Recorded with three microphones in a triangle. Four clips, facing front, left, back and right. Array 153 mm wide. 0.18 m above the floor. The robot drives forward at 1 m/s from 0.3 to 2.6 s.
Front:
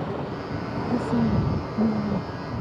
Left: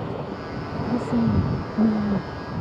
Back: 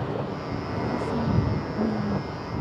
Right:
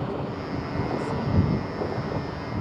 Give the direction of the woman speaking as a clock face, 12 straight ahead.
10 o'clock.